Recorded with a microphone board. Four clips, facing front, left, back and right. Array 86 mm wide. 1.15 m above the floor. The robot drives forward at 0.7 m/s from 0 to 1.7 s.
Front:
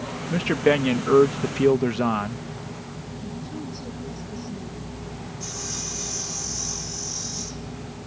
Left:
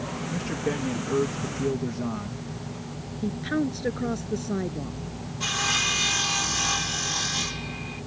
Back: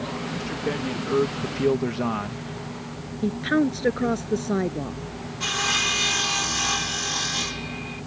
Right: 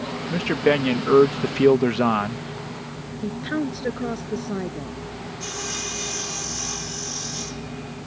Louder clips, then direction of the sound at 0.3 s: Right 10 dB, front 12 dB; 40° right.